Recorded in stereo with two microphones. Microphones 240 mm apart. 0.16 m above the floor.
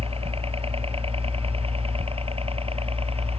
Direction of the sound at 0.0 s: 25° right (ahead or behind).